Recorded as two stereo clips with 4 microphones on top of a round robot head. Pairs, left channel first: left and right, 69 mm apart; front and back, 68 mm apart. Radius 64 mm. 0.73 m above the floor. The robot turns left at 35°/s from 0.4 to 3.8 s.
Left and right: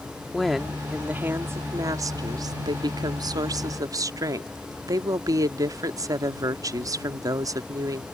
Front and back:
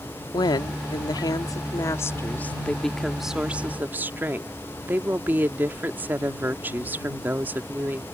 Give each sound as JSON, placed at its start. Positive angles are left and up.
{"t": 0.3, "sound": "a woman speaking", "azimuth_deg": 5}